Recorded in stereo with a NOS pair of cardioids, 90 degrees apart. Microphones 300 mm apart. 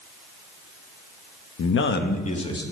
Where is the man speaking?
50° left, 1.1 m; by 2.6 s 15° left, 1.9 m.